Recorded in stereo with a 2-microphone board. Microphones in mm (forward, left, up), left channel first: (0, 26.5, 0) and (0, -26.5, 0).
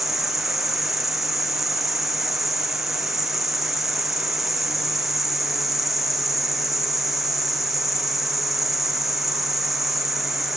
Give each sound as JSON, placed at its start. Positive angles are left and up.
{"t": 0.0, "sound": "an insect", "side_deg": -5, "distance_m": 1.8}